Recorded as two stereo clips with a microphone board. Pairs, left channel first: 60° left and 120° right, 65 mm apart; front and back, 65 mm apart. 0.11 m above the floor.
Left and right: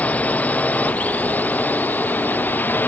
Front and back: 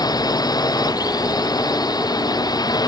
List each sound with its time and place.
0.0 s a drone: 10° right; by 2.9 s straight ahead